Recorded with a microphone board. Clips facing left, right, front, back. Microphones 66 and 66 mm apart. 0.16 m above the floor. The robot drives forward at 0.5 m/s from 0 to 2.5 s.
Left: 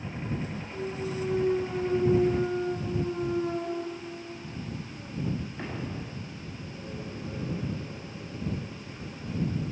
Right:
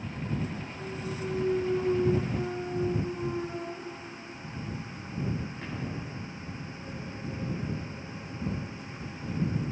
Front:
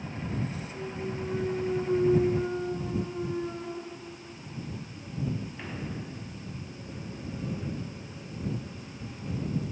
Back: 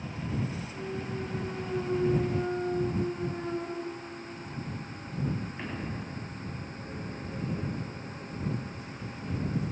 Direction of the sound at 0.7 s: 95° left.